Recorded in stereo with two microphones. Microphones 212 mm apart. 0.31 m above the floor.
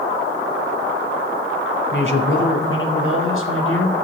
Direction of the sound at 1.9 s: 65° left (ahead or behind).